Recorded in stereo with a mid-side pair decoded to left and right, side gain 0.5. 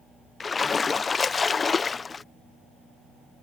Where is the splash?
30° left.